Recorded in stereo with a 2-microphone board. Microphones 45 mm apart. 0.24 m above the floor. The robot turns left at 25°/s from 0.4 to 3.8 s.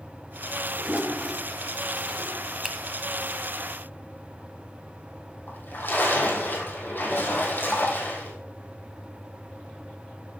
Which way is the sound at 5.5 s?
50° left (ahead or behind).